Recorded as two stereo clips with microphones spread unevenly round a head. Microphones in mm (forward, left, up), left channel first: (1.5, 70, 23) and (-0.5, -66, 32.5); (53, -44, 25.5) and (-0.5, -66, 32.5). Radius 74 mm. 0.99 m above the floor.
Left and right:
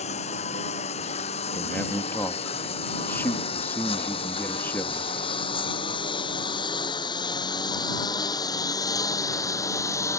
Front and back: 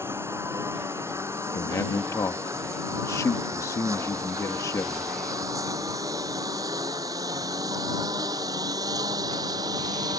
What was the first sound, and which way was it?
A lawn mower, 135° left.